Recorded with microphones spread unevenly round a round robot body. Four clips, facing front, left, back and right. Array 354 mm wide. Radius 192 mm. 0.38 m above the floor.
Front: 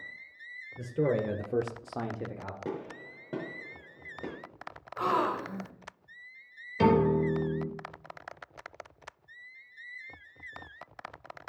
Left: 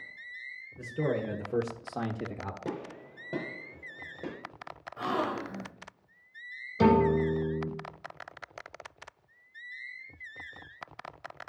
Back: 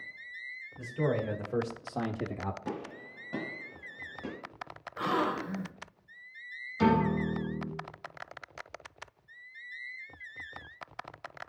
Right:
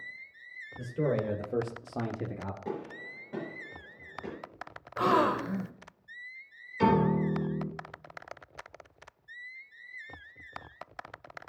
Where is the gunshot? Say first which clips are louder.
Even, front 1 dB; 45° left, 5.5 m.